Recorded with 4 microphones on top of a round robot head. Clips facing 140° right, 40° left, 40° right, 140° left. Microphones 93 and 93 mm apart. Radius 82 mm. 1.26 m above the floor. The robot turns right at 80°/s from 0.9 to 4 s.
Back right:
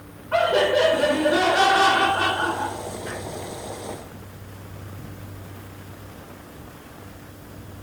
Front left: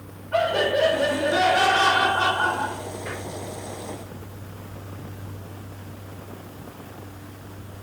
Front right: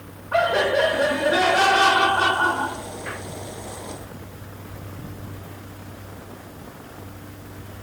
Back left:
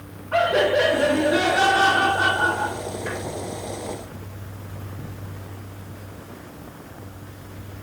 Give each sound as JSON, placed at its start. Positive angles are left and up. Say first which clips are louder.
{"t": 0.3, "sound": "laughter", "louder": "back right 3 dB, back left 1 dB", "azimuth_deg": -130, "distance_m": 2.0}